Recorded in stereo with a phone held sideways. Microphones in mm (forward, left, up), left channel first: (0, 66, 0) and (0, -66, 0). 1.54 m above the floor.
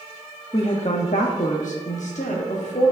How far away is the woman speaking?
About 0.7 m.